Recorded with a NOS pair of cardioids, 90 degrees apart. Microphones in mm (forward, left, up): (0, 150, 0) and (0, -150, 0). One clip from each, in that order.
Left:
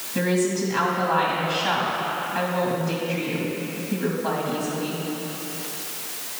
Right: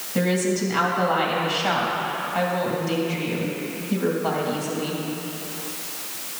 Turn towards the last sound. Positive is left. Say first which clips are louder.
# even
turn(degrees=-25)